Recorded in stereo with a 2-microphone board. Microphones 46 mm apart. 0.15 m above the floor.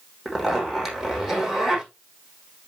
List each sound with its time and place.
0.2 s a zipper: 5° right (ahead or behind), 6.5 m